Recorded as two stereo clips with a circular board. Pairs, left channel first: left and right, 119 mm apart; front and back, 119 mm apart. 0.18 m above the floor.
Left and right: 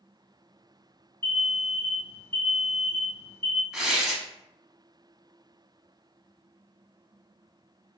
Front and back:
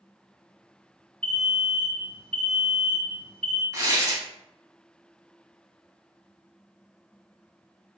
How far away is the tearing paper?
About 0.7 m.